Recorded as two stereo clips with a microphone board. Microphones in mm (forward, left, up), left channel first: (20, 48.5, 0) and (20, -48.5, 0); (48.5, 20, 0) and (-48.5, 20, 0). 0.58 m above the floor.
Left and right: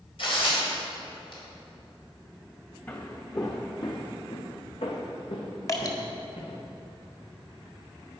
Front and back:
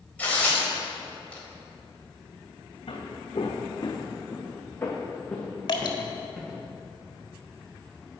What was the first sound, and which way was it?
Tearing paper, 75° left.